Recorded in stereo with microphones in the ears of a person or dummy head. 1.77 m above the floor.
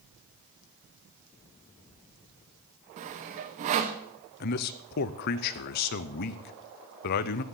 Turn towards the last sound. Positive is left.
turn(degrees=45)  # may be behind; listen again after turning